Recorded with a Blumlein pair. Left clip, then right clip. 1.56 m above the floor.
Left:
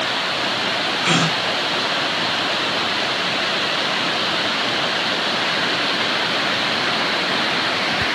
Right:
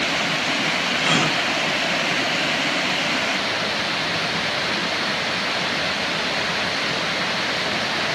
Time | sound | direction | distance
1.0 | a gasp | 10° left | 0.6 m